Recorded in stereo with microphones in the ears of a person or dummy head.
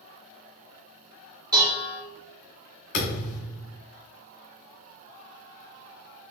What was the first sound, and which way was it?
Dishes clattering, 20° right (ahead or behind).